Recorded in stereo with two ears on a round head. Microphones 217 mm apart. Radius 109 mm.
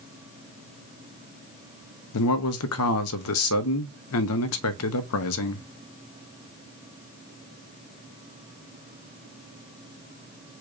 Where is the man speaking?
65° left (ahead or behind), 1.0 m.